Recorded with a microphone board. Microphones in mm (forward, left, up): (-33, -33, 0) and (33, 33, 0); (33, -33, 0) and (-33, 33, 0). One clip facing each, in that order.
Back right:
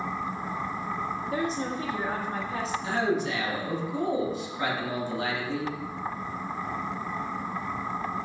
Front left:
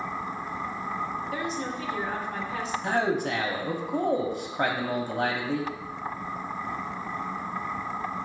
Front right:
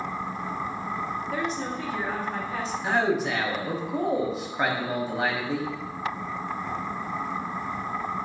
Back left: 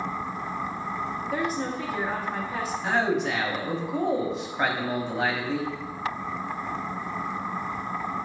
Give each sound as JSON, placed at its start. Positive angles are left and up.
{"t": 1.3, "sound": "a woman speaking", "azimuth_deg": -145, "distance_m": 1.0}
{"t": 2.8, "sound": "a man speaking", "azimuth_deg": 40, "distance_m": 0.8}